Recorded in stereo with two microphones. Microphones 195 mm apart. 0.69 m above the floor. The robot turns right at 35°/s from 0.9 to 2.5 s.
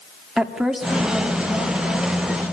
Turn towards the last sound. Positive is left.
turn(degrees=55)